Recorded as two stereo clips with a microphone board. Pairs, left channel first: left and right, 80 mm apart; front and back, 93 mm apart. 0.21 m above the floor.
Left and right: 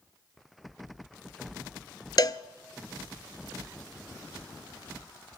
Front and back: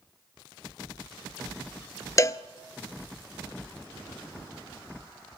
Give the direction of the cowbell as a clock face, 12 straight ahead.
10 o'clock.